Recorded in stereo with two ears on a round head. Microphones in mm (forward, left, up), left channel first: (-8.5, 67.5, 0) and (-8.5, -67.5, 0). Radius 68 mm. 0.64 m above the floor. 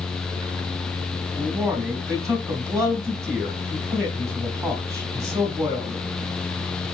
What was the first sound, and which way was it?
A man speaking, 20° right (ahead or behind).